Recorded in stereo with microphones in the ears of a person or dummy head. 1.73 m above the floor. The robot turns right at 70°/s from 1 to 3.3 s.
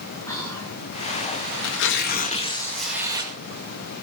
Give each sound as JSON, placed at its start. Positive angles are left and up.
{"t": 0.3, "sound": "whispering", "side_deg": 15, "distance_m": 5.0}
{"t": 1.6, "sound": "tearing paper", "azimuth_deg": 95, "distance_m": 2.0}